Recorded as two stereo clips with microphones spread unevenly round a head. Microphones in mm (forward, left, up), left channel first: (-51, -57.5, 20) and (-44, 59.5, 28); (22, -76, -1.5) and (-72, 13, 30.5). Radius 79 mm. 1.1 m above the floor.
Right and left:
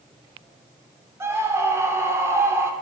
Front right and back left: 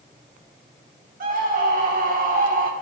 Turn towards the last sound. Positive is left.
turn(degrees=155)